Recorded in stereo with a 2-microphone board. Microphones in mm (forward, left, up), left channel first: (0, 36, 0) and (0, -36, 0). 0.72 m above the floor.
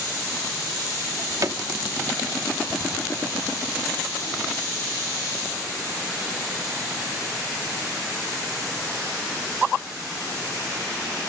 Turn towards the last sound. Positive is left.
turn(degrees=-50)  # may be behind; listen again after turning